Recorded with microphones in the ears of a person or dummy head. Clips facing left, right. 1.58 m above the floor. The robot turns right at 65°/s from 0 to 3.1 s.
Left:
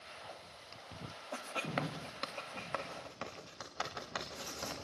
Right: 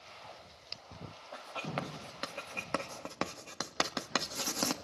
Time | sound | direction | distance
1.3 | writing | 50° left (ahead or behind) | 2.5 m